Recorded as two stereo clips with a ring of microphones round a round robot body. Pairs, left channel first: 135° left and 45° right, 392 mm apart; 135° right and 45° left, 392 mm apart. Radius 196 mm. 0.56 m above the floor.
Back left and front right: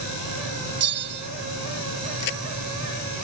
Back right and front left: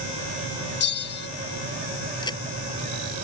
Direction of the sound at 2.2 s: 145° left.